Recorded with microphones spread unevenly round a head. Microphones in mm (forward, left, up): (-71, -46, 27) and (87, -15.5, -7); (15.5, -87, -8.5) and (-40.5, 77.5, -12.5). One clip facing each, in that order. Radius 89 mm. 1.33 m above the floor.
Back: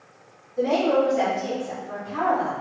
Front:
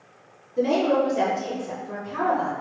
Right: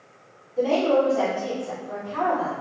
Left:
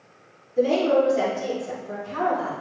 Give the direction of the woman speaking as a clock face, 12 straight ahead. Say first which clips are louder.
Even, left 1 dB; 10 o'clock.